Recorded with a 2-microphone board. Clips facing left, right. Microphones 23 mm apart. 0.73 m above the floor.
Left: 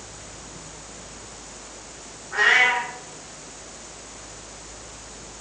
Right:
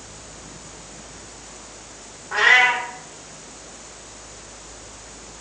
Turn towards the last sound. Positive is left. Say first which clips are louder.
# right 3 dB
turn(degrees=-70)  # may be behind; listen again after turning